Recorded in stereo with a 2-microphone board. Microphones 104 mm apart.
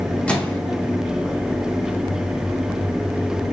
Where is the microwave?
10° left (ahead or behind), 0.5 m.